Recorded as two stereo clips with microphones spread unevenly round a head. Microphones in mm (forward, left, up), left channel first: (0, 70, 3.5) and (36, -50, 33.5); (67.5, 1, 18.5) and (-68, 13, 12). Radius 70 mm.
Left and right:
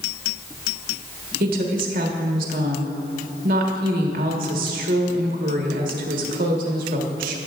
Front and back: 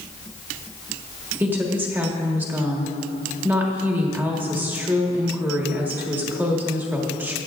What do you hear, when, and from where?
1.4 s a woman speaking: 105° right, 1.3 m